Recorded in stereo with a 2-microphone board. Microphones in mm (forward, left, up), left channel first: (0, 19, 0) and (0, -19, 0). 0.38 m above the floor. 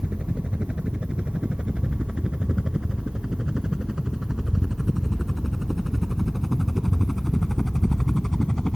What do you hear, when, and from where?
0.0 s a helicopter: 30° right (ahead or behind); by 8.8 s 15° left (ahead or behind)